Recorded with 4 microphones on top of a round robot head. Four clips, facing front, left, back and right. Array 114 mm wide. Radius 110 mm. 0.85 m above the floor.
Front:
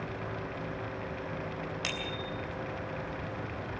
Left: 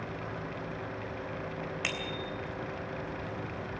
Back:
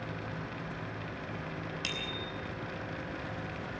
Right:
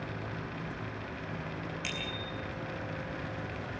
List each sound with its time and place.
1.8 s a bicycle bell: 65° left, 3 m